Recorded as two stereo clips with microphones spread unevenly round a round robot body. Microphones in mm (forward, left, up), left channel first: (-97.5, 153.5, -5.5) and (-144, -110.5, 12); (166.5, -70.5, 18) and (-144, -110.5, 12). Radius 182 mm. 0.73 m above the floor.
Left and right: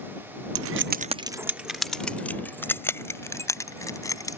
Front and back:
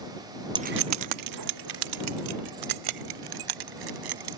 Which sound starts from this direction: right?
Keys jangling, at 0.6 s.